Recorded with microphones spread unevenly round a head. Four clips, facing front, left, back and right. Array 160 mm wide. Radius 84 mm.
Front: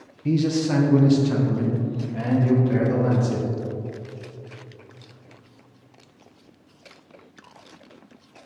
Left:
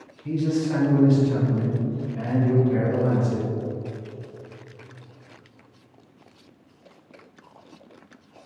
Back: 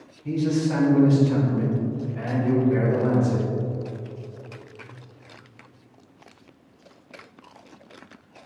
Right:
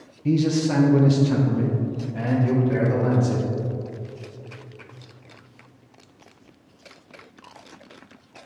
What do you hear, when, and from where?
0.2 s a man speaking: 50° right, 0.9 m; by 3.5 s 35° right, 3 m